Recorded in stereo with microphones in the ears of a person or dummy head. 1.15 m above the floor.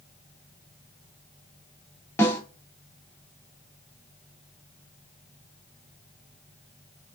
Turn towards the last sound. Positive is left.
turn(degrees=15)  # may be behind; listen again after turning